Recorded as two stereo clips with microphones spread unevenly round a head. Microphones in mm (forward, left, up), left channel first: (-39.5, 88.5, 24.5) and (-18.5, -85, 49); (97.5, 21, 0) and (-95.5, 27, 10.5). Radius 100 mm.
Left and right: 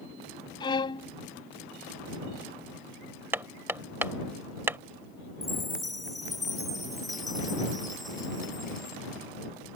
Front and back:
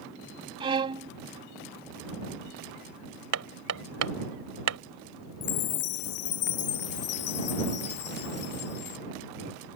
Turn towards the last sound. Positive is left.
turn(degrees=5)